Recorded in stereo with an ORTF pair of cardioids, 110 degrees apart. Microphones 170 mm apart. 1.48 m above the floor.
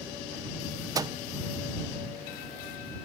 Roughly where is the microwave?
Ahead.